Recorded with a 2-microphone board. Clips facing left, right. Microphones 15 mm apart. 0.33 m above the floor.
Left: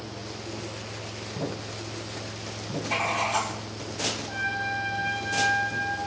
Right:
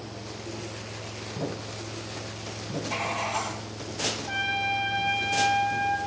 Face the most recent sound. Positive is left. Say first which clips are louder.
# right 2 dB
turn(degrees=-60)  # may be behind; listen again after turning